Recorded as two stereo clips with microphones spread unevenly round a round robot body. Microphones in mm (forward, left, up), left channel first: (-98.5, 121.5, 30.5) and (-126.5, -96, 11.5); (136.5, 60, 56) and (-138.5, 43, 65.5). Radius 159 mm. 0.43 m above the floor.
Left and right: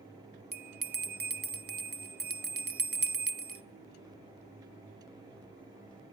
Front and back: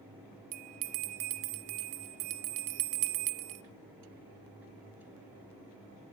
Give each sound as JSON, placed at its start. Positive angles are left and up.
{"t": 0.5, "sound": "a bell", "azimuth_deg": -145, "distance_m": 0.8}